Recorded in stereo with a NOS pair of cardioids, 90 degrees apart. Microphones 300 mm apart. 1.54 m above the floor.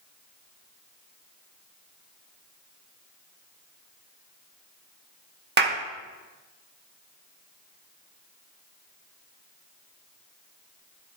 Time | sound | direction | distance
5.6 | a clap | 35° right | 1.8 m